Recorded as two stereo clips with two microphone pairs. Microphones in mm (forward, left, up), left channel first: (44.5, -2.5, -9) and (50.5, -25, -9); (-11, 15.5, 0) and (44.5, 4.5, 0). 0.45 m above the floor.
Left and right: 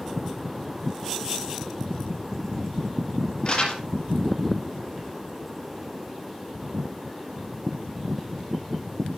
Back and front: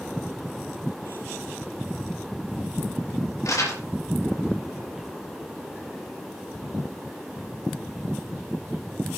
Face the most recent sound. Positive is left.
turn(degrees=150)